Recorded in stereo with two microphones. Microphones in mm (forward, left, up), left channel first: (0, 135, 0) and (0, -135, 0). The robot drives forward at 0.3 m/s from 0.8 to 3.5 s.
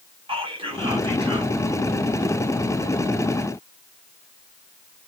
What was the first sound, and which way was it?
Whispering, 20° right (ahead or behind).